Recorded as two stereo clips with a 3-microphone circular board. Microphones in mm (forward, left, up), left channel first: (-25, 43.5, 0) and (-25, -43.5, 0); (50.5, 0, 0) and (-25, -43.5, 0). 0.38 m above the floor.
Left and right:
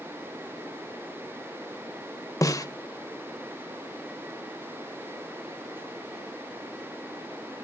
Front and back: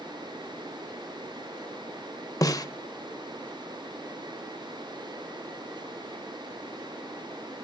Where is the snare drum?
55° left, 1.0 m.